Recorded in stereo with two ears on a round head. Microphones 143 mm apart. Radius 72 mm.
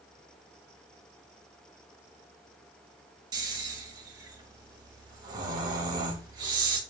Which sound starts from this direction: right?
Snoring, at 3.3 s.